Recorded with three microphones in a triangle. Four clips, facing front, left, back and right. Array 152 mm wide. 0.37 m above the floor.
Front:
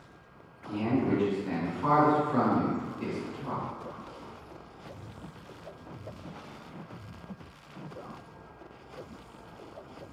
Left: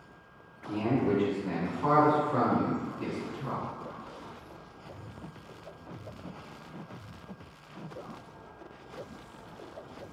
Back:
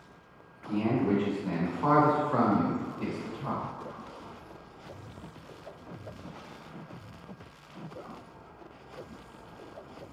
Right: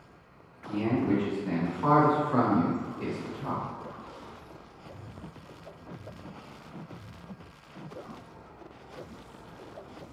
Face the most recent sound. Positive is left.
turn(degrees=-125)